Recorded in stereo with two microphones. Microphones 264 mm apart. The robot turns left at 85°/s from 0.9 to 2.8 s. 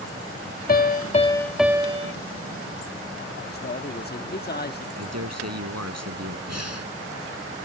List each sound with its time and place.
0.7 s a piano: 55° left; by 2.1 s 50° right
3.5 s a man speaking: 40° left (ahead or behind)
5.0 s a man speaking: 75° right (ahead or behind)
6.5 s breathing: 75° right (ahead or behind)